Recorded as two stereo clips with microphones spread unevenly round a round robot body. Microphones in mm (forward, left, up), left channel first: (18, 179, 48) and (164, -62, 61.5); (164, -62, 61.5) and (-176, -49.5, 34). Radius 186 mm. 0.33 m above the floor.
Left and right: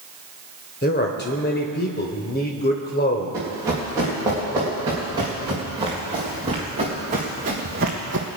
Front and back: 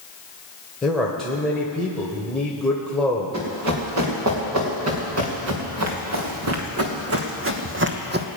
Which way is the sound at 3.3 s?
140° right.